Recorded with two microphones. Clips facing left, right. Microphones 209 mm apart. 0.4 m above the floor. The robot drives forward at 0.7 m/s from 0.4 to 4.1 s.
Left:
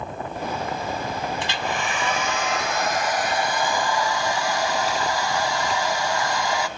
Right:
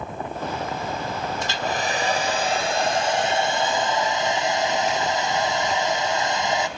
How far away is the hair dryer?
About 1.4 m.